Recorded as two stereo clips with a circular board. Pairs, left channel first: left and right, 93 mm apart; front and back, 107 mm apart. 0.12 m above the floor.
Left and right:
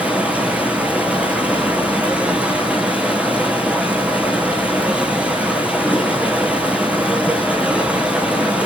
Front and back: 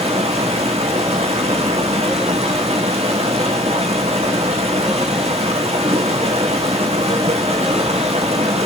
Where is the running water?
165° right, 4.5 m.